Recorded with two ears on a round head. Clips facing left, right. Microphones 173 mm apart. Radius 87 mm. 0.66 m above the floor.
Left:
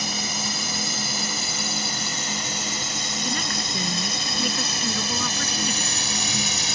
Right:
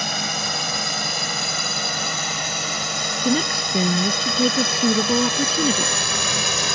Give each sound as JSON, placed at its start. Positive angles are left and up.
{"t": 0.0, "sound": "a drone", "side_deg": -50}
{"t": 3.2, "sound": "a woman speaking", "side_deg": -30}